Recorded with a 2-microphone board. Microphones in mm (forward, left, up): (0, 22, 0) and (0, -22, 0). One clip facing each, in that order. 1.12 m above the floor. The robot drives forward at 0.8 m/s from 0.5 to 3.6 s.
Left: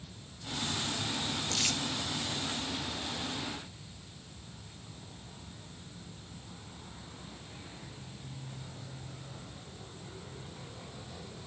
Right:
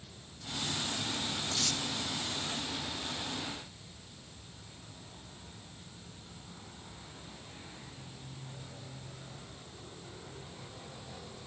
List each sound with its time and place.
1.5 s crumpling: 60° left (ahead or behind), 1.0 m; by 1.8 s 65° left (ahead or behind), 1.0 m